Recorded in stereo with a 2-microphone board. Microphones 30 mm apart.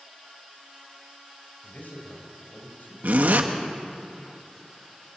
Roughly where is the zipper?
Right.